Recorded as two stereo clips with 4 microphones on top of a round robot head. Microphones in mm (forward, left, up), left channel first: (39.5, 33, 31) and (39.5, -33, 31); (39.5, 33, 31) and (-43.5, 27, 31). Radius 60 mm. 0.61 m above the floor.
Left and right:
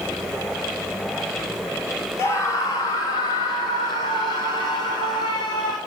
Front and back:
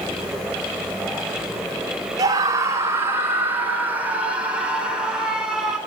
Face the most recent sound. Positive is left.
turn(degrees=100)